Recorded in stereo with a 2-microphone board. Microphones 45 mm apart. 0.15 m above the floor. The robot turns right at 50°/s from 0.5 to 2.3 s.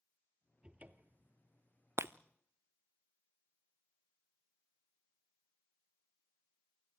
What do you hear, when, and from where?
0.6 s a cupboard door: 155° right, 1.2 m; by 1.3 s 120° right, 1.2 m
2.0 s breaking glass: 70° right (ahead or behind), 0.7 m; by 2.1 s 75° right (ahead or behind), 0.7 m